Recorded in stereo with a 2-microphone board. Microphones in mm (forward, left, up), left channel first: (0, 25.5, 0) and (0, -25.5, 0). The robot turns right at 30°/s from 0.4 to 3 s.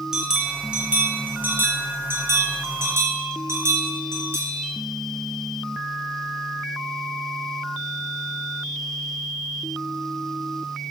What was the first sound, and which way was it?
A bell, 165° right.